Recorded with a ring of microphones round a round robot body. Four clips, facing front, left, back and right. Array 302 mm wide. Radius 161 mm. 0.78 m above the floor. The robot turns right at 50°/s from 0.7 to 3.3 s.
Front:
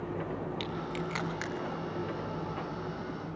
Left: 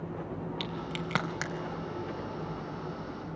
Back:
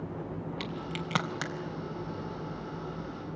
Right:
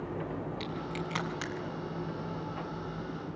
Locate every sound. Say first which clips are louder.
0.6 s a crack: even, front 1 dB; 105° left, 3.5 m; by 1.5 s 150° left, 3.5 m